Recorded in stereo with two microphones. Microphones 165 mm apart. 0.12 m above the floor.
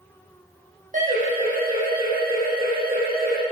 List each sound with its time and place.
0.9 s a siren: 50° right (ahead or behind), 6 m; by 3.4 s 70° right (ahead or behind), 6 m